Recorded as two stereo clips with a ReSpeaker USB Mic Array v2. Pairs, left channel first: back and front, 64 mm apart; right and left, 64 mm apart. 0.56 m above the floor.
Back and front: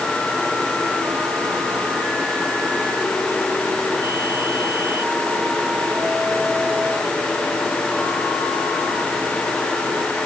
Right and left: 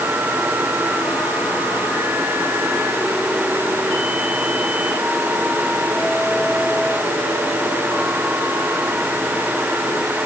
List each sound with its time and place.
Only background noise.